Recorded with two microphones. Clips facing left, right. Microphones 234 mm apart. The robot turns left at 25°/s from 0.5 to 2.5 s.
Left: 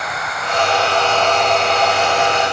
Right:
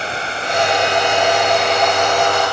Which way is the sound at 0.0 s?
150° right.